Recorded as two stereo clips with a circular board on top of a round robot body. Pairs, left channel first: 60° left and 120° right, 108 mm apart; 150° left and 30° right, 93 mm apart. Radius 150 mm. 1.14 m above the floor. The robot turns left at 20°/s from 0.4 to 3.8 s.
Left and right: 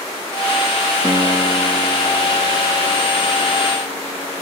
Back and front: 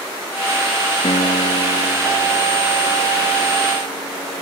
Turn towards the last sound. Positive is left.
turn(degrees=125)